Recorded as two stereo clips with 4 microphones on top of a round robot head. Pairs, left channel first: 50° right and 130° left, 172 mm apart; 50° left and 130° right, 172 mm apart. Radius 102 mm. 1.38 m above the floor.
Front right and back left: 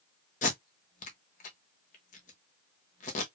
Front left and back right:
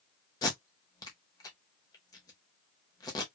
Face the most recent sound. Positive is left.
turn(degrees=-15)